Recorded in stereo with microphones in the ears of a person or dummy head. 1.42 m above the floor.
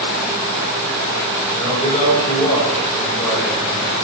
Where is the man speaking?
15° left (ahead or behind), 9.5 m.